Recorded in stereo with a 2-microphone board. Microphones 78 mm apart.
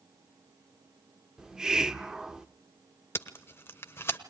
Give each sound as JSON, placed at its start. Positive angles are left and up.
{"t": 1.4, "sound": "a hiss", "side_deg": -10, "distance_m": 0.6}
{"t": 3.1, "sound": "tape being pulled", "side_deg": 30, "distance_m": 1.1}